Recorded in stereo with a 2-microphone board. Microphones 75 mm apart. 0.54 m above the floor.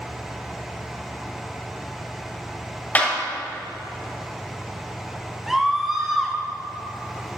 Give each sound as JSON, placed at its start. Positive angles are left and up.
{"t": 3.0, "sound": "a clap", "side_deg": 20, "distance_m": 2.5}
{"t": 5.5, "sound": "a scream", "side_deg": -5, "distance_m": 1.3}